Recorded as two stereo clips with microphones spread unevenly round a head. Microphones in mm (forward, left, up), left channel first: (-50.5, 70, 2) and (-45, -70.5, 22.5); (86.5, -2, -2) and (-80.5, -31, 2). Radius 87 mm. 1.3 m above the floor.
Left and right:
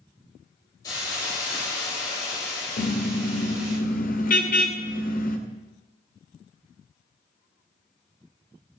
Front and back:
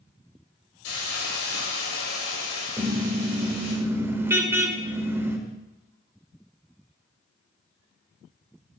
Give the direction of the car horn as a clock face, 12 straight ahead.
8 o'clock.